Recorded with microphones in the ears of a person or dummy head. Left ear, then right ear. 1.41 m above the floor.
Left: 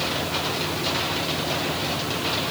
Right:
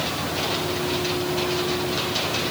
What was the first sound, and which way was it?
Only background noise.